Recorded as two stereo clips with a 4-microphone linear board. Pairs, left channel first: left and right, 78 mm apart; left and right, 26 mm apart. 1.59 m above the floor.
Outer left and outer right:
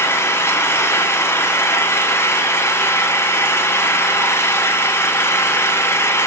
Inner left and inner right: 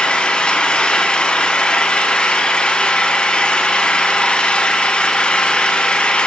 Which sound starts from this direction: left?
An engine running, at 0.0 s.